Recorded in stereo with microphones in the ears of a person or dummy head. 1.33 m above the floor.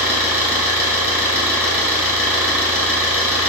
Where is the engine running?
10° right (ahead or behind), 1.0 m.